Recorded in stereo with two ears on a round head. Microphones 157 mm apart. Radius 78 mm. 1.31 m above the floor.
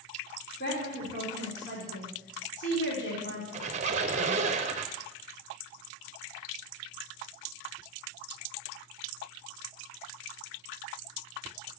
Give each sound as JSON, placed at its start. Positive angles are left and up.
{"t": 0.6, "sound": "a woman speaking", "side_deg": 70, "distance_m": 4.0}
{"t": 3.5, "sound": "a squeak", "side_deg": -40, "distance_m": 0.6}